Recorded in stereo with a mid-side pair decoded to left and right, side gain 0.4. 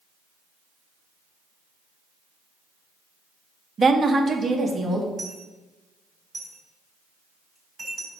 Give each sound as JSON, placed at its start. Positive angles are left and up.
{"t": 3.8, "sound": "a woman speaking", "azimuth_deg": -45, "distance_m": 0.7}
{"t": 5.2, "sound": "a dropped coin", "azimuth_deg": -40, "distance_m": 3.5}